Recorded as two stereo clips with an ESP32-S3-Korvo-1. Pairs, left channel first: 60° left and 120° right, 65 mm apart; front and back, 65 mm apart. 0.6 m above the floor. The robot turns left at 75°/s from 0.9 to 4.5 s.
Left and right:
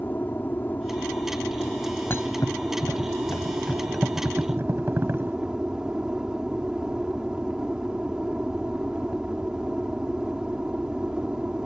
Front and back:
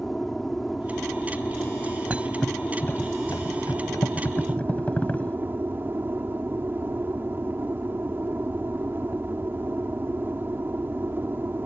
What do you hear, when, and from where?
0.0 s an aircraft: 85° left; by 11.7 s 175° left
2.1 s a thud: 110° left; by 5.4 s 70° right